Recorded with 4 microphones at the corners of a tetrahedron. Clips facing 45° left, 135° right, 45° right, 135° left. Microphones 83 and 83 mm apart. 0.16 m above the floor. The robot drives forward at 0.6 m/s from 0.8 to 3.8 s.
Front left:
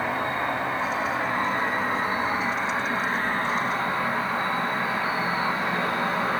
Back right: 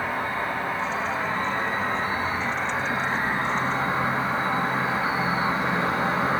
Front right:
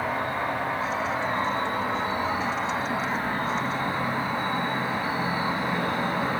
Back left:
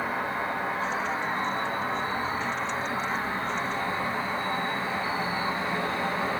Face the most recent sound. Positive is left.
turn(degrees=-75)